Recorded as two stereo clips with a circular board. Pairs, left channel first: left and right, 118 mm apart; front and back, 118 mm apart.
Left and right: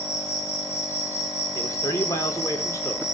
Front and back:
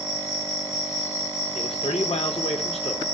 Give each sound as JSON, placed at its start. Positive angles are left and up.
{"t": 0.0, "sound": "an insect", "azimuth_deg": 30, "distance_m": 9.0}
{"t": 1.6, "sound": "a man speaking", "azimuth_deg": 30, "distance_m": 4.0}